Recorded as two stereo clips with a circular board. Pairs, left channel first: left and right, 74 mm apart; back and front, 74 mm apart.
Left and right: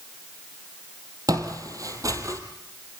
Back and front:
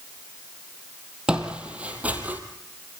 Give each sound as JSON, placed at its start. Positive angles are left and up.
{"t": 1.3, "sound": "footsteps", "azimuth_deg": -75, "distance_m": 3.0}